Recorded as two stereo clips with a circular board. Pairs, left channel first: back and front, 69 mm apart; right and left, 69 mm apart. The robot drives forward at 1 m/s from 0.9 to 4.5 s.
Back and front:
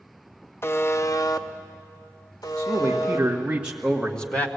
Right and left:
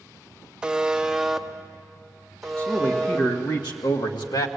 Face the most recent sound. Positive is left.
turn(degrees=-115)